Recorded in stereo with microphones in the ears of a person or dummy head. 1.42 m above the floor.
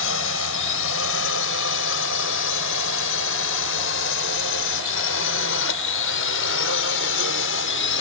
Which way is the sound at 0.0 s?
75° left (ahead or behind).